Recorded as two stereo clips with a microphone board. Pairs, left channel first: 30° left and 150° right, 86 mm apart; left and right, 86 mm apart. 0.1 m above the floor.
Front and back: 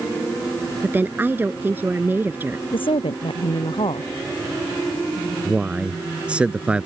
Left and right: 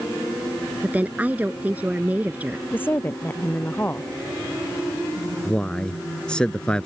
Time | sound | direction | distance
0.8 | a woman speaking | 130° right | ?
2.7 | a woman speaking | 25° left | ?
5.5 | a man speaking | 155° left | ?